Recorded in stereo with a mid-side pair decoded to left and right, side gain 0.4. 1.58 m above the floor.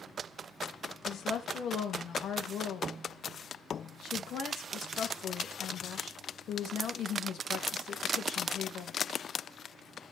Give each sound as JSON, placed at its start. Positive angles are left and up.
{"t": 1.1, "sound": "a woman speaking", "azimuth_deg": 65, "distance_m": 3.0}